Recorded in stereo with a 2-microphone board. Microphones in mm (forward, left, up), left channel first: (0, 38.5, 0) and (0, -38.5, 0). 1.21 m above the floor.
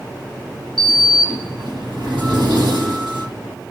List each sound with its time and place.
0.8 s a sliding door: 80° right, 6.5 m